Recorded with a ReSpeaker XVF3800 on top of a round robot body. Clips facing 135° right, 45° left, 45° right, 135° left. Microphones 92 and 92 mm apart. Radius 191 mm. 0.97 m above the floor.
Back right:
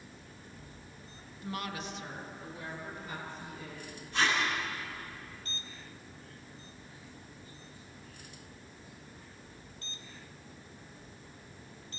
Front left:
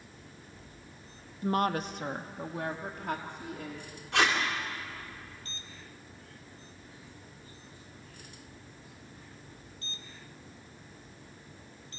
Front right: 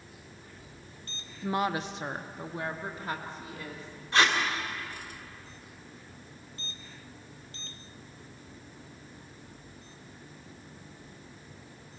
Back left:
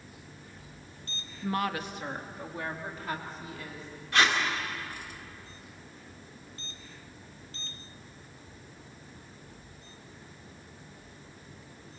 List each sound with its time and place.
1.4 s a woman speaking: 25° left, 0.8 m; by 4.0 s 15° left, 3 m
4.1 s tape being pulled: 20° left, 2.5 m